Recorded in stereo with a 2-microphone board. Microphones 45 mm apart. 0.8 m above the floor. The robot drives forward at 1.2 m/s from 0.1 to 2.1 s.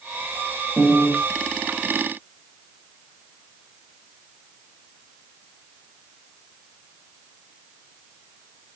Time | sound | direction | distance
0.8 | a piano | 45° right (ahead or behind) | 6 m